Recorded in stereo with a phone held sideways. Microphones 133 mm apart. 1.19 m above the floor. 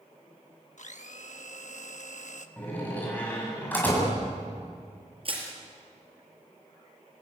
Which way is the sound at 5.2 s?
45° right (ahead or behind).